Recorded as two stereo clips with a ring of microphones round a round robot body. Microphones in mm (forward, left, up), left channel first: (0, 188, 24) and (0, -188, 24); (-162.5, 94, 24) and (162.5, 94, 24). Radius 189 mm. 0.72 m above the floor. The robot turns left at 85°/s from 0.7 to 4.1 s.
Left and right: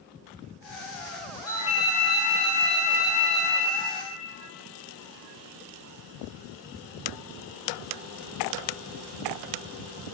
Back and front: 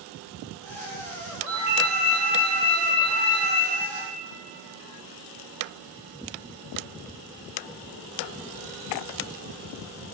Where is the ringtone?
10° left, 0.9 m; by 3.7 s 175° right, 0.9 m.